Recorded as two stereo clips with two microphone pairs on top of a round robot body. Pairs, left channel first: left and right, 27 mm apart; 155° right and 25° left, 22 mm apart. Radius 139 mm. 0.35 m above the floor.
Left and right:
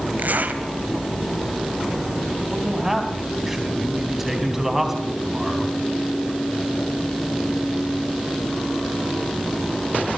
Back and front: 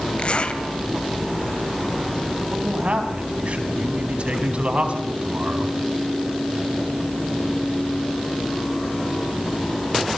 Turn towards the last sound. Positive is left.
turn(degrees=-10)